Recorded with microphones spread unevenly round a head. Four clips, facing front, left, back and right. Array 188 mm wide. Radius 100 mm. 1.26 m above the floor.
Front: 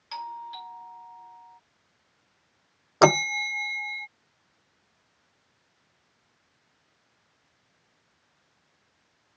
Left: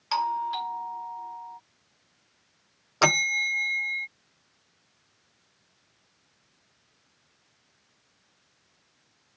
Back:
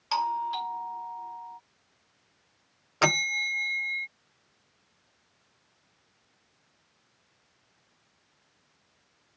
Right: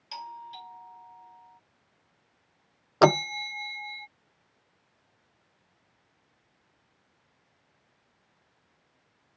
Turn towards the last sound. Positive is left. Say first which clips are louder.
# right 4 dB, front 8 dB
turn(degrees=-40)